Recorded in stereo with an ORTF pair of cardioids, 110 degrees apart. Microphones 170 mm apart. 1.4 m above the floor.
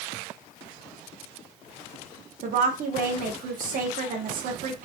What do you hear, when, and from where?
2.4 s a woman speaking: 55° right, 0.9 m